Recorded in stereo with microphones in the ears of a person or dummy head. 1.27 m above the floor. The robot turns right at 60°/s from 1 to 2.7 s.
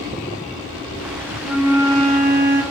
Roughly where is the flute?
Behind.